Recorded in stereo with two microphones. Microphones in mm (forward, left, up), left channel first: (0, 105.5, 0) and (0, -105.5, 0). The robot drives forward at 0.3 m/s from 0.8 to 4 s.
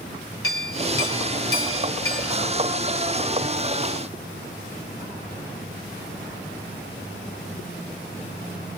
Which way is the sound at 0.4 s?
85° left.